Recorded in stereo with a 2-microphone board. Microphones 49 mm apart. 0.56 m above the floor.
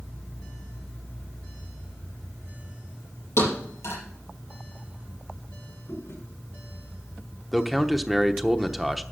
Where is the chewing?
70° left (ahead or behind), 7 m.